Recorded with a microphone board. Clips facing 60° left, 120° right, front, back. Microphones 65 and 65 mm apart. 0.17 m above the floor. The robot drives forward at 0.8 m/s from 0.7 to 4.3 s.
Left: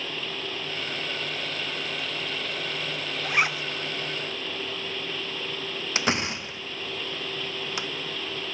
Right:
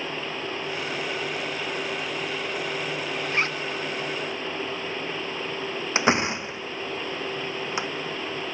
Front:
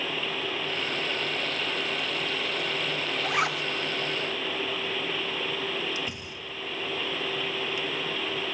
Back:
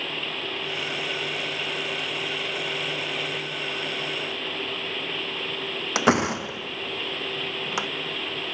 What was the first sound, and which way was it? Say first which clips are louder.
A zipper: left 3 dB, front 5 dB; 15° right.